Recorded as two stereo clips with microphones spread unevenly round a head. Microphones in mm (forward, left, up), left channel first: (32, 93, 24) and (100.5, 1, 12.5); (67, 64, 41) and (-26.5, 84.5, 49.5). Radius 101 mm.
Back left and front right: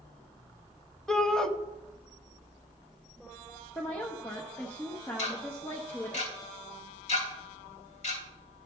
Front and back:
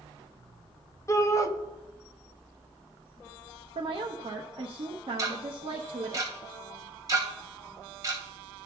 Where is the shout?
40° left, 1.2 m.